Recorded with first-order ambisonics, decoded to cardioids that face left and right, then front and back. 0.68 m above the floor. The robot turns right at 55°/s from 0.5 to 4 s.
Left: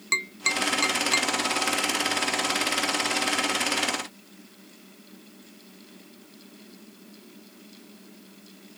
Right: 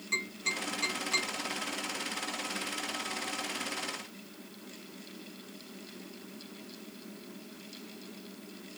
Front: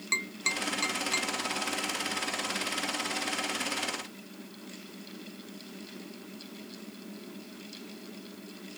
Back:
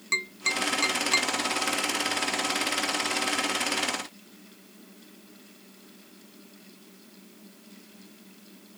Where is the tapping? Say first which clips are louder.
Left 8 dB, back 3 dB; 90° left, 1.1 m; by 1.3 s 135° left, 1.1 m.